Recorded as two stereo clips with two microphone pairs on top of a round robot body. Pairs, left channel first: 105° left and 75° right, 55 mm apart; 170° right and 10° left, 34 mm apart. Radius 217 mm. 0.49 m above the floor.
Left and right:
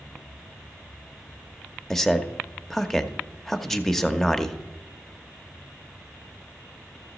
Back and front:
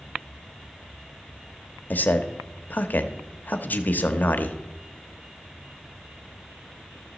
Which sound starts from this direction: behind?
A man speaking, at 1.9 s.